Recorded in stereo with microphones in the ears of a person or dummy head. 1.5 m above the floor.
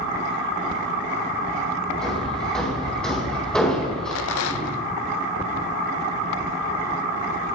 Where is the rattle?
75° left (ahead or behind), 0.7 m.